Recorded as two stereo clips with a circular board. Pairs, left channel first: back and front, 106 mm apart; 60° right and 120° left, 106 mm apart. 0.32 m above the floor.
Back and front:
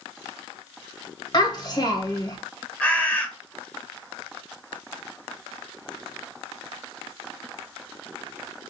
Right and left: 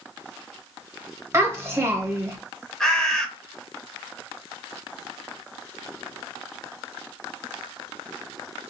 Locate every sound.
1.3 s a child speaking: 170° left, 1.3 m
2.8 s a bird: 135° right, 0.9 m